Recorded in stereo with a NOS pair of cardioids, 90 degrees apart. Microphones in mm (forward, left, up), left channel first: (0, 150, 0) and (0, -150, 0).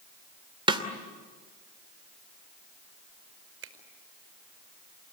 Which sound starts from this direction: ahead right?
A finger snap, at 3.6 s.